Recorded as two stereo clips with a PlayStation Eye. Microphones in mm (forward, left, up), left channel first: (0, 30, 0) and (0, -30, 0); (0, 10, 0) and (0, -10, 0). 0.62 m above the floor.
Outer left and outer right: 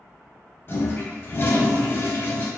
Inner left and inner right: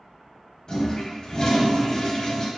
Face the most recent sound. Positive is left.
turn(degrees=40)  # may be behind; listen again after turning